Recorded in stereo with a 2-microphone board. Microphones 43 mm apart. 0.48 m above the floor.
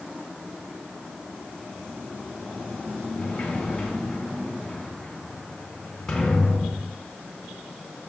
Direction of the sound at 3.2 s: 10° left (ahead or behind).